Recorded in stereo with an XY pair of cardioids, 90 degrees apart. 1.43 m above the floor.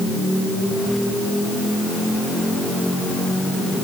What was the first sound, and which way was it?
Only background noise.